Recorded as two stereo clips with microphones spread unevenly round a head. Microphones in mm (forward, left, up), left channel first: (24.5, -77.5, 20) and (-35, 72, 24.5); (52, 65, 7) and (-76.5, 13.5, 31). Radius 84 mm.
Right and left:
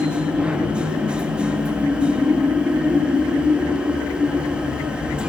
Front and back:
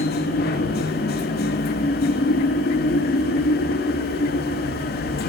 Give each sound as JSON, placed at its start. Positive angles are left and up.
{"t": 0.0, "sound": "a machine running", "azimuth_deg": 30, "distance_m": 1.2}